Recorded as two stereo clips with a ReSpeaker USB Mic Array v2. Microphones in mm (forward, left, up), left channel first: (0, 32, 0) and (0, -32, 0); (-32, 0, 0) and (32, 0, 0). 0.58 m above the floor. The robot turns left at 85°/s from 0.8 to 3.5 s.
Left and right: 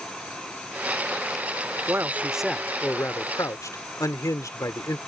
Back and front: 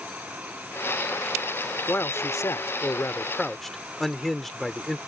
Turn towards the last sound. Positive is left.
turn(degrees=90)